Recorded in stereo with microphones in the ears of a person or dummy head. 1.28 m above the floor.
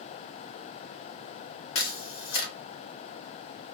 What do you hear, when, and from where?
1.8 s a camera shutter: 75° left (ahead or behind), 0.7 m